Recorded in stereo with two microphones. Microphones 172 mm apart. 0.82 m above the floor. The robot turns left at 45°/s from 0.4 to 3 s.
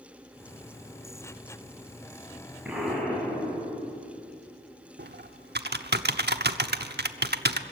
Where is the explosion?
5° right (ahead or behind), 6 m; by 4.2 s 10° left (ahead or behind), 6 m.